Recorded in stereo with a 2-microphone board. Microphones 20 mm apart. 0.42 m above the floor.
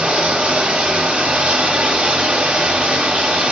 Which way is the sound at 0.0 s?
80° right.